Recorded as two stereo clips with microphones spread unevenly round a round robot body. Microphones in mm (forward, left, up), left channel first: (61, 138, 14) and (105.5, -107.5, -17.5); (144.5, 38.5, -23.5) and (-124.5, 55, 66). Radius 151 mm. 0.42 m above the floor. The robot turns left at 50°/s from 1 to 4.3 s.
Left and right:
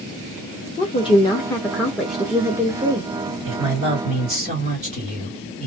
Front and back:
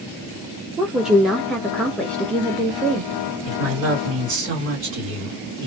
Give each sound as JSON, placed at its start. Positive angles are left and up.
{"t": 0.8, "sound": "a woman speaking", "azimuth_deg": 45, "distance_m": 0.7}
{"t": 3.5, "sound": "a man speaking", "azimuth_deg": -90, "distance_m": 2.0}